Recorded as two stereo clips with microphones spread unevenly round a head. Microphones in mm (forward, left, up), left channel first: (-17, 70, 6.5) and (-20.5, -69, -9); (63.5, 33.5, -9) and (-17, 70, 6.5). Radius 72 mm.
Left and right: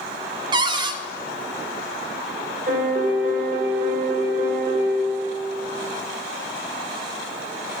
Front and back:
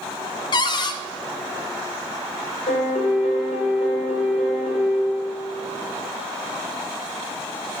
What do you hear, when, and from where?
0.5 s a cupboard door: 40° right, 0.6 m
2.7 s a piano: 50° right, 2.5 m